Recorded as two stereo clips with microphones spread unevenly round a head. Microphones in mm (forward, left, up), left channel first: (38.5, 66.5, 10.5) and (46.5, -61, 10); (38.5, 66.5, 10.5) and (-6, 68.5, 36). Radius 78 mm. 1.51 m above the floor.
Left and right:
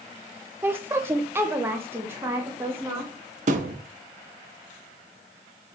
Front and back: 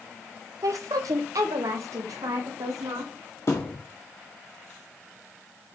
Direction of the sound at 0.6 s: 165° right.